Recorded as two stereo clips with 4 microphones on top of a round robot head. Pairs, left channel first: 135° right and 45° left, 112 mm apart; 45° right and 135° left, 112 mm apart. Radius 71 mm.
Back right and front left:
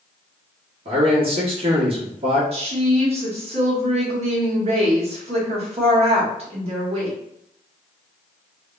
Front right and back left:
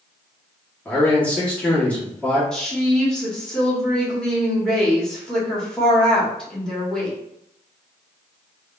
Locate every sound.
0.8 s a man speaking: 30° left, 1.6 m
2.5 s a woman speaking: 40° left, 1.6 m